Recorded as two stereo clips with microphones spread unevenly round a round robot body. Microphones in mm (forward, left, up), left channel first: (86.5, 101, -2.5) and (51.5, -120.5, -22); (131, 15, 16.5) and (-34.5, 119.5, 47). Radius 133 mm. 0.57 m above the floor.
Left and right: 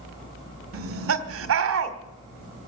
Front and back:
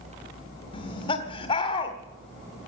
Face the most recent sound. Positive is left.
turn(degrees=-95)